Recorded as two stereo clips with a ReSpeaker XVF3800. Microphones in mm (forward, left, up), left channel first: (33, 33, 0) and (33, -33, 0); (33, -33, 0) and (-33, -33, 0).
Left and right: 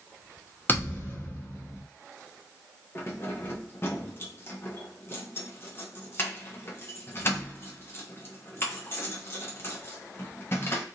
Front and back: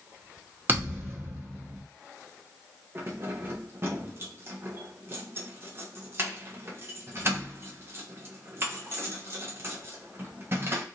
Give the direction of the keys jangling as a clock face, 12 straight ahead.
7 o'clock.